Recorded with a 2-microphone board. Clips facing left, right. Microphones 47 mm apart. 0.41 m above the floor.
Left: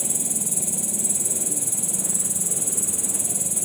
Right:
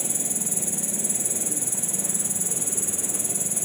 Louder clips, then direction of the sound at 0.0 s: Left 1 dB; 45° right (ahead or behind).